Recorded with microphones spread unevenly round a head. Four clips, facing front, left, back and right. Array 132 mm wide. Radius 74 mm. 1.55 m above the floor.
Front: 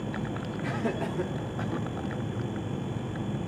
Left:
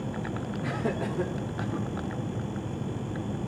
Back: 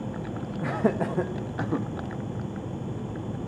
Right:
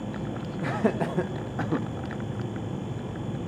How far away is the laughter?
About 1.7 m.